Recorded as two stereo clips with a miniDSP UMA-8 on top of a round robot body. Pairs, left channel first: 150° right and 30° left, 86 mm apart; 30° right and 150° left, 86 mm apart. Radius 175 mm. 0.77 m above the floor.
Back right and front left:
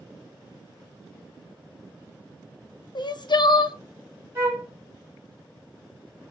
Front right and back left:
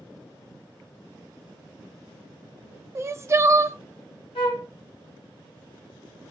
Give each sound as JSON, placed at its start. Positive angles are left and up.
{"t": 3.0, "sound": "crying", "azimuth_deg": -160, "distance_m": 0.6}
{"t": 4.3, "sound": "a flute", "azimuth_deg": -30, "distance_m": 1.5}